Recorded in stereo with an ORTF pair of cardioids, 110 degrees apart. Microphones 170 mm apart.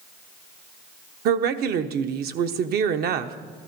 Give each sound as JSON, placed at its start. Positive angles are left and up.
{"t": 1.2, "sound": "a woman speaking", "azimuth_deg": -65, "distance_m": 0.9}